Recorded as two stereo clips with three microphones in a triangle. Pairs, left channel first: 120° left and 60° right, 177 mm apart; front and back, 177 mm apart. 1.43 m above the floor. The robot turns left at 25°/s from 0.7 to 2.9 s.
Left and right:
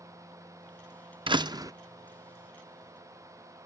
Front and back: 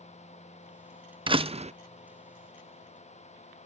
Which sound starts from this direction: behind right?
A door slam, at 1.3 s.